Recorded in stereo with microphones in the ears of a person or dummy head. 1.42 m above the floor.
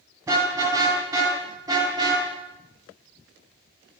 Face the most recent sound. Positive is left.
turn(degrees=-25)  # may be behind; listen again after turning